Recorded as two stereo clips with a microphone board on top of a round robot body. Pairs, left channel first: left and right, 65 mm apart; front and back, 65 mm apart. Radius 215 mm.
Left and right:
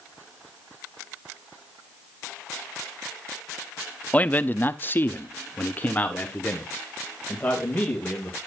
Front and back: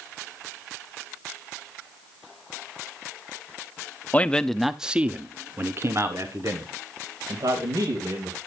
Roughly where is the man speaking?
Ahead left.